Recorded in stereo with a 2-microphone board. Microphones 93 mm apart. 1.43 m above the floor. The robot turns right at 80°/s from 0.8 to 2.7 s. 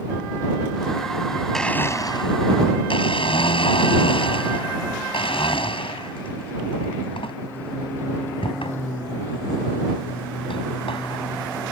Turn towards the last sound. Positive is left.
turn(degrees=85)